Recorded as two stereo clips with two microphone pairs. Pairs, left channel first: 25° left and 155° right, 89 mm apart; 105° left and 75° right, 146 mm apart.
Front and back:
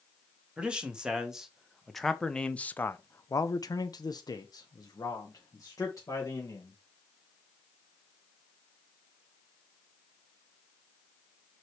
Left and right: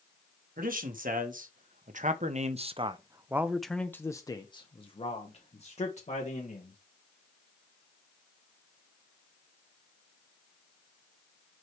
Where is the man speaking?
75° right, 1.6 m; by 6.8 s 75° left, 1.9 m.